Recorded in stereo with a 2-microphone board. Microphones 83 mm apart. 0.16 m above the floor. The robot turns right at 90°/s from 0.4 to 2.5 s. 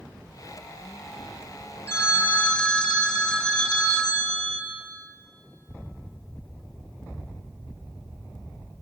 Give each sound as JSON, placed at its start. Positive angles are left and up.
{"t": 1.9, "sound": "a phone ringing", "azimuth_deg": 105, "distance_m": 1.1}